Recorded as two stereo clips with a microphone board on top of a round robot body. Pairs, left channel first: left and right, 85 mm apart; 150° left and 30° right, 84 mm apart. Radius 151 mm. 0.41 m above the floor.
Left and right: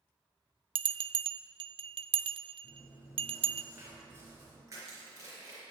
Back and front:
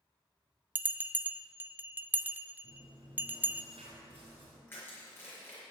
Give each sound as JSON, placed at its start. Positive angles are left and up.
{"t": 0.8, "sound": "a bell", "azimuth_deg": -100, "distance_m": 0.5}
{"t": 2.6, "sound": "chewing", "azimuth_deg": -30, "distance_m": 4.5}
{"t": 4.7, "sound": "crushing", "azimuth_deg": -145, "distance_m": 4.5}